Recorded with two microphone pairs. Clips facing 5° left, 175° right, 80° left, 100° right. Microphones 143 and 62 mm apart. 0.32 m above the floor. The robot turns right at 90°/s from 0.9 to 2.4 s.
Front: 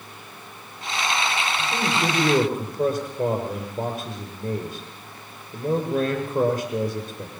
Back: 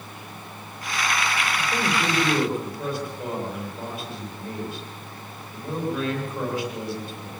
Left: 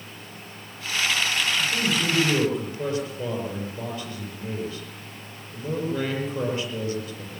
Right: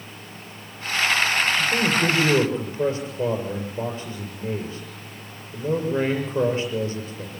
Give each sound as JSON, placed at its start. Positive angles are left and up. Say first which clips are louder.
{"t": 1.6, "sound": "a man speaking", "louder": "front 1 dB, right 4 dB", "azimuth_deg": -110, "distance_m": 7.5}